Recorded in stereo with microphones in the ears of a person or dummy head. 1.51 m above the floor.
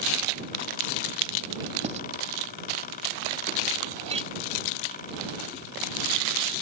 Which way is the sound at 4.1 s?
35° right (ahead or behind).